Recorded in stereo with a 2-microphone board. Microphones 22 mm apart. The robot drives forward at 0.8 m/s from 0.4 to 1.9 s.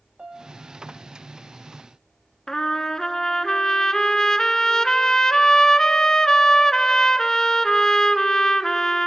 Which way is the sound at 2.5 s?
30° left (ahead or behind).